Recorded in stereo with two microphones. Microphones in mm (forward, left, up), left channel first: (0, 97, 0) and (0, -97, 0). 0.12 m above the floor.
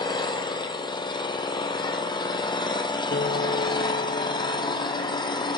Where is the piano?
60° left (ahead or behind), 1.1 m.